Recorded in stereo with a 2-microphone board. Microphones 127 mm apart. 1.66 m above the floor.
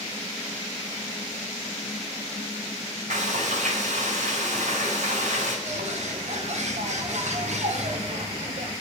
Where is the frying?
75° right (ahead or behind), 4.5 m.